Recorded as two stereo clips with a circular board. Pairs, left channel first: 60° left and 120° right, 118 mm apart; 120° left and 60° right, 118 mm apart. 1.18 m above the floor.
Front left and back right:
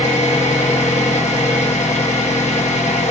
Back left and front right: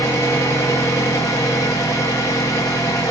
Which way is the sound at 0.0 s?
55° left.